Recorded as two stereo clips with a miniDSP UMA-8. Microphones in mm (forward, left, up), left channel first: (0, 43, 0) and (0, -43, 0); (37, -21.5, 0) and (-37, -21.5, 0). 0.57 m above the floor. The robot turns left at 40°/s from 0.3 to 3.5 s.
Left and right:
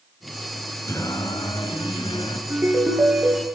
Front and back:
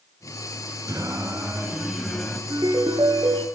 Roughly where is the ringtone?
Behind right.